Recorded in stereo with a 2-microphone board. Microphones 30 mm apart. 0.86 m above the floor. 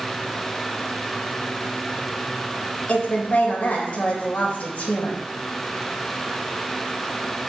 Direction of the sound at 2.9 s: 45° left (ahead or behind).